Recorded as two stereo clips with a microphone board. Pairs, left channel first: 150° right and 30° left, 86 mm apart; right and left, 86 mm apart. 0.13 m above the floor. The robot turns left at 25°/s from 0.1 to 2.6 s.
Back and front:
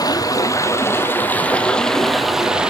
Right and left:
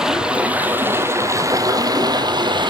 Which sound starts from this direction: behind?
Running water, at 0.0 s.